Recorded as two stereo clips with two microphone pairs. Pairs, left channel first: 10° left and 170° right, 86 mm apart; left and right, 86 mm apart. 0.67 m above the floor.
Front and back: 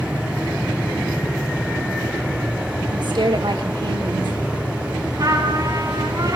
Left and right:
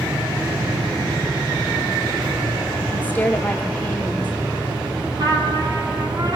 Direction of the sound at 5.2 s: 125° right.